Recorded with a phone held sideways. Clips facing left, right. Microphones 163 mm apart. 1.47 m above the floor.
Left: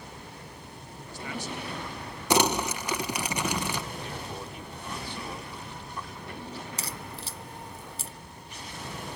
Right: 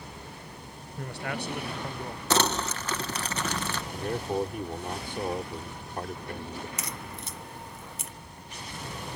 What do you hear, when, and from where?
1.0 s a man speaking: 70° right (ahead or behind); by 2.2 s 50° right (ahead or behind)
2.3 s crumpling: 15° left (ahead or behind)
3.9 s a man speaking: 50° right (ahead or behind)
6.8 s a crack: 30° left (ahead or behind)